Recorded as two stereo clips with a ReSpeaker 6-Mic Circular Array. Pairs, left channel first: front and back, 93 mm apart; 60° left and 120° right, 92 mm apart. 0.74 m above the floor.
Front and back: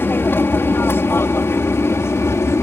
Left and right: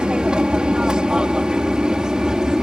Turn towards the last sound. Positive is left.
turn(degrees=-40)